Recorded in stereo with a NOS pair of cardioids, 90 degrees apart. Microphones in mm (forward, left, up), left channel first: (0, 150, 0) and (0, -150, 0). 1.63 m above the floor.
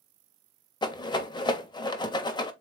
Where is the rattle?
15° left, 1.0 m.